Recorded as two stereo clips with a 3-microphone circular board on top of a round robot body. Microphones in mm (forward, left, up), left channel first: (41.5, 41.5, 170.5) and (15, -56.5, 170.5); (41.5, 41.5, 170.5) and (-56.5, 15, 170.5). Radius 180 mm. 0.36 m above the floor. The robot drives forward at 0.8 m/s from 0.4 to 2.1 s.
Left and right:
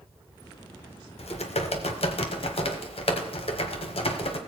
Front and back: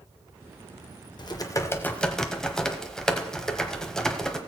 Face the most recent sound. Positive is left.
turn(degrees=100)